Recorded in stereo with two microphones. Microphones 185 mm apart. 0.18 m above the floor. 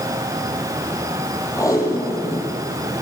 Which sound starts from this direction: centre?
Tape being pulled, at 1.6 s.